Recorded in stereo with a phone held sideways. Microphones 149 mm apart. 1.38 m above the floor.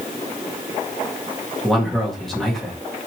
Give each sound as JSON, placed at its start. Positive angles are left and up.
{"t": 1.6, "sound": "a man speaking", "side_deg": 0, "distance_m": 2.0}